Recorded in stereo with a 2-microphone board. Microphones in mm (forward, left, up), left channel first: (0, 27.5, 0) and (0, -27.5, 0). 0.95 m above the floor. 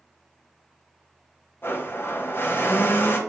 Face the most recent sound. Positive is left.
turn(degrees=40)  # may be behind; listen again after turning